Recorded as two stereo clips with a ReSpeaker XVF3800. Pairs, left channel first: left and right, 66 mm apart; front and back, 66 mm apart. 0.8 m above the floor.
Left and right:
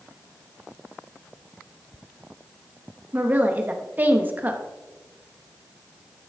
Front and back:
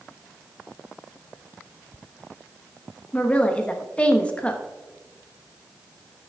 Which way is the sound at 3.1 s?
55° right.